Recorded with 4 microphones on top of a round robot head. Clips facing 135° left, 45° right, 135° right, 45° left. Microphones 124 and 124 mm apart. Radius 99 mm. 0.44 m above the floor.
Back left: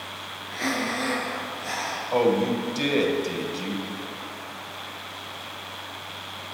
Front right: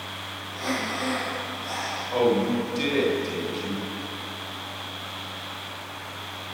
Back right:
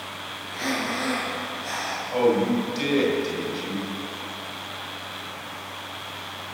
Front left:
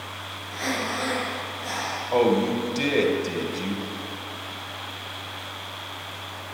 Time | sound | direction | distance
0.5 | breathing | 135° left | 5 m
2.1 | a man speaking | 85° left | 3 m